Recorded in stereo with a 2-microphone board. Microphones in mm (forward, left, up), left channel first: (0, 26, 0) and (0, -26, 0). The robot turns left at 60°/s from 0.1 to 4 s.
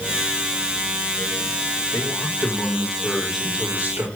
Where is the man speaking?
85° left, 6 m; by 4.0 s 40° right, 6 m.